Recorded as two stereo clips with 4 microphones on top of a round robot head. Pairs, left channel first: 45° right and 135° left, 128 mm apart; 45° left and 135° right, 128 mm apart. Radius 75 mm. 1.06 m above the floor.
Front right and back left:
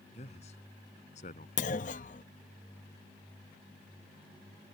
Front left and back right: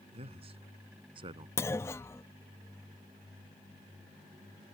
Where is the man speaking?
90° right; by 1.5 s 80° right.